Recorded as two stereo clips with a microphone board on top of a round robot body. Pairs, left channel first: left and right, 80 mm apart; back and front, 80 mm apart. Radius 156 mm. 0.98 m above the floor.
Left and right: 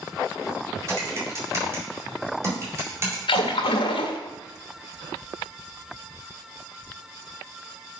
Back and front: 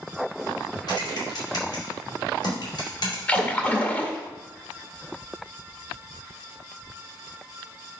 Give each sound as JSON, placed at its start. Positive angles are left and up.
{"t": 0.9, "sound": "typing on a keyboard", "azimuth_deg": -145, "distance_m": 4.0}
{"t": 3.3, "sound": "a splash", "azimuth_deg": 105, "distance_m": 0.5}